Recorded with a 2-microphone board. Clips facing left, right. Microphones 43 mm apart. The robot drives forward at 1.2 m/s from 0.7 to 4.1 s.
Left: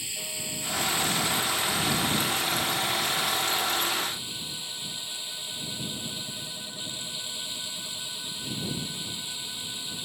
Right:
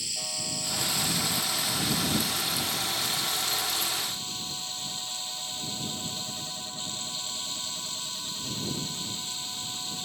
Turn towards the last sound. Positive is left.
turn(degrees=20)  # may be behind; listen again after turning